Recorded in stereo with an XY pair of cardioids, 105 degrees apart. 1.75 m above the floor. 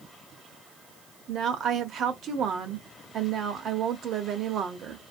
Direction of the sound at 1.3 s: 60° right.